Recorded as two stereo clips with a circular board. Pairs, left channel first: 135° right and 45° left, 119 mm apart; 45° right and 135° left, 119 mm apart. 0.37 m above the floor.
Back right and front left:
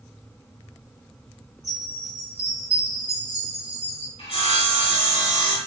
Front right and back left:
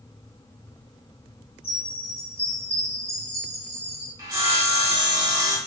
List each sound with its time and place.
1.6 s a chime: 80° right, 2 m
4.2 s sawing: 165° right, 1.7 m